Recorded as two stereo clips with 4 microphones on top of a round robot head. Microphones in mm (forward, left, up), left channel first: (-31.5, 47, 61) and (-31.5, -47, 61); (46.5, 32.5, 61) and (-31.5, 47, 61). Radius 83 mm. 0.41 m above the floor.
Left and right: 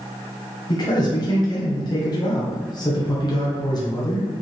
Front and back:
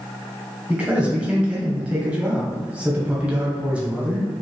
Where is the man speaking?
100° left, 1.1 m.